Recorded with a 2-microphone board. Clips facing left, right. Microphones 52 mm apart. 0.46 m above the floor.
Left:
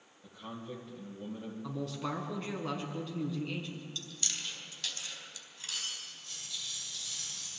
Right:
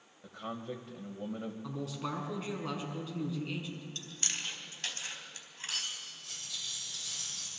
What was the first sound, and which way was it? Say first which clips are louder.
A man speaking: right 4 dB; 65° right (ahead or behind).